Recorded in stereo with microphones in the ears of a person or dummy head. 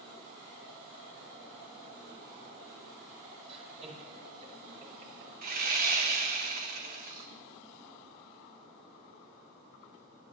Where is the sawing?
50° right (ahead or behind), 1.8 m.